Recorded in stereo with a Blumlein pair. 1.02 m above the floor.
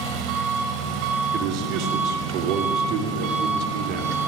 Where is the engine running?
40° right, 3 m.